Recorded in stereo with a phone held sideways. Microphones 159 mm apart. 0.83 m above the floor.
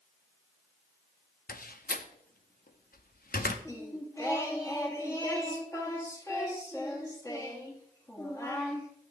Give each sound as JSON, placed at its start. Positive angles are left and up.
{"t": 1.5, "sound": "a door slam", "side_deg": 65, "distance_m": 0.8}
{"t": 3.6, "sound": "singing", "side_deg": 20, "distance_m": 1.7}